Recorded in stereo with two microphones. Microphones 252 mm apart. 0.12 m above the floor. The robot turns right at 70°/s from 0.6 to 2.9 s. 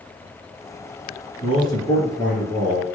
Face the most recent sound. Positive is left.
turn(degrees=-125)